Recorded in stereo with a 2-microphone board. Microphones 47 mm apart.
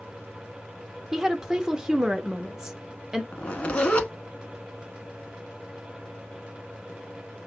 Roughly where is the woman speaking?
Centre.